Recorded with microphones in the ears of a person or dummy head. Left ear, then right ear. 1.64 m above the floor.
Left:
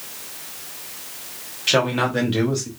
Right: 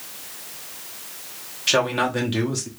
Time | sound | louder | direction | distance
1.7 | a man speaking | left 1 dB | 5° right (ahead or behind) | 1.2 m